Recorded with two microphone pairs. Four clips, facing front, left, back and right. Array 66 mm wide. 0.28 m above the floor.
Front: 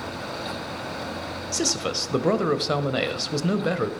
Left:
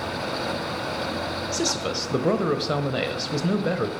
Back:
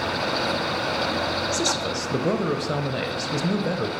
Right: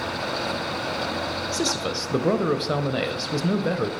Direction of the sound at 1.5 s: 15° left.